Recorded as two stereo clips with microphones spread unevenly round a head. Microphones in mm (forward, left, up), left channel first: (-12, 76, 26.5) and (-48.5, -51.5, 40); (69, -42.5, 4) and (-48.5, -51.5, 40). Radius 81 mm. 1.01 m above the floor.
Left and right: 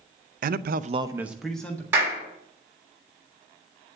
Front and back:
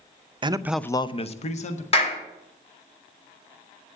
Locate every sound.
0.4 s a man speaking: 120° right, 0.7 m; by 1.8 s 5° right, 1.6 m
1.9 s a clap: 30° right, 2.5 m